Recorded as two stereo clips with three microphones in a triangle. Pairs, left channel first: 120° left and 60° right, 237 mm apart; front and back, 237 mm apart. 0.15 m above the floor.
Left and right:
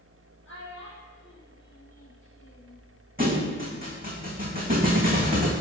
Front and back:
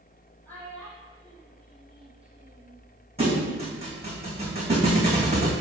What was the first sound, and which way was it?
A child speaking, 85° left.